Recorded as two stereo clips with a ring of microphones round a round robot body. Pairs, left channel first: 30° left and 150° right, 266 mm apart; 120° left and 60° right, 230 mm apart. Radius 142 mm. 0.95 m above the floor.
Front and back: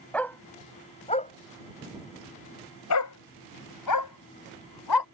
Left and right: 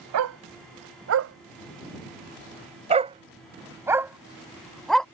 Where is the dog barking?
55° right; by 5.0 s 35° left.